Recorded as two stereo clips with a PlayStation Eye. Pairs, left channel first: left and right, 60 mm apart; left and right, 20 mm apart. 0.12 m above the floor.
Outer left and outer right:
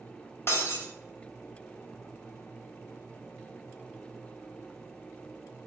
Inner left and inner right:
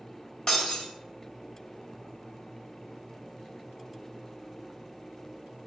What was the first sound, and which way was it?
Breaking glass, 40° left (ahead or behind).